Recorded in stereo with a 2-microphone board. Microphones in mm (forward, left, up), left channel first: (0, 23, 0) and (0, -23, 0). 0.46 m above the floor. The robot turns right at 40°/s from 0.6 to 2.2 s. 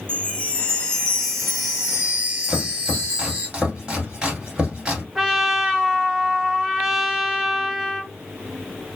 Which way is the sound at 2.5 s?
20° right (ahead or behind).